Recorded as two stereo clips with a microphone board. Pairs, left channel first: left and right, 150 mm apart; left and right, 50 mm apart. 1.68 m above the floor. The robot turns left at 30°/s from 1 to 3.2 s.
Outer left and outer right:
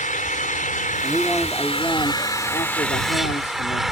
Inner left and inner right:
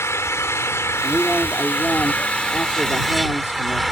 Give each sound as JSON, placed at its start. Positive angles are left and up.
{"t": 0.0, "sound": "an engine running", "azimuth_deg": 65}
{"t": 1.0, "sound": "a man speaking", "azimuth_deg": -175}